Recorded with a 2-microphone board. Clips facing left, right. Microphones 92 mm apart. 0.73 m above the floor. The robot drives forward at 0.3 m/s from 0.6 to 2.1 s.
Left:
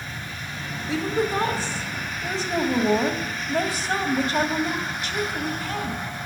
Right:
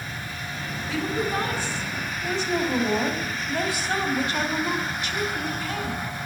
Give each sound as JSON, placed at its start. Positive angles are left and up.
{"t": 0.9, "sound": "a woman speaking", "side_deg": 30, "distance_m": 1.8}